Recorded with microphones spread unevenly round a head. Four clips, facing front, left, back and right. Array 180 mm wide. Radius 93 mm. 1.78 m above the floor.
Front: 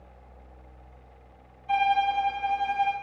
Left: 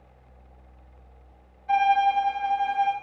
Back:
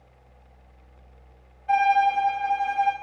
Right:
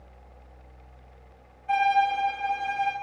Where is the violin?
Straight behind, 3.5 m.